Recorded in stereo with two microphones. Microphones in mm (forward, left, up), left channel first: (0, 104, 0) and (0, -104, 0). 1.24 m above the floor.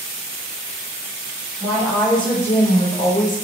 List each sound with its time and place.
1.6 s a woman speaking: 5° right (ahead or behind), 1.3 m; by 3.5 s 45° left (ahead or behind), 0.7 m